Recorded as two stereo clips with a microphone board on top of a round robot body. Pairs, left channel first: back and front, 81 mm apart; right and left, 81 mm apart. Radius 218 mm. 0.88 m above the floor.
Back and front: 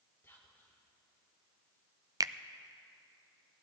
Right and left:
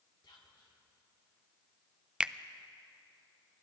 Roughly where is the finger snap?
Ahead.